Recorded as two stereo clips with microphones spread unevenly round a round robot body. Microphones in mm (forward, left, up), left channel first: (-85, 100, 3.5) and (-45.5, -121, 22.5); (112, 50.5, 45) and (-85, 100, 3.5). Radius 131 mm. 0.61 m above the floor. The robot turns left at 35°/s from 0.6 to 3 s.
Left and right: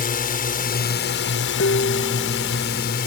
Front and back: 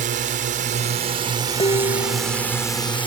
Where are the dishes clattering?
50° left; by 2.5 s 20° left.